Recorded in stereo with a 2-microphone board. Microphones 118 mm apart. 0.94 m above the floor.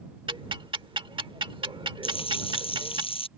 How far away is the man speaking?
No man speaking in this recording.